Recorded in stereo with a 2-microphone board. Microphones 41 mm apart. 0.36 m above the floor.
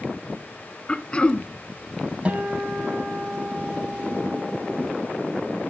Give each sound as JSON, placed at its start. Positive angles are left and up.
{"t": 0.9, "sound": "throat clearing", "side_deg": 25, "distance_m": 0.8}
{"t": 2.2, "sound": "a guitar", "side_deg": -30, "distance_m": 2.5}